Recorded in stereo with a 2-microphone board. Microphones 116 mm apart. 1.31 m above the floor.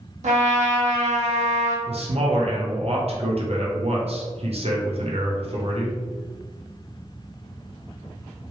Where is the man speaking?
60° right (ahead or behind), 0.8 m.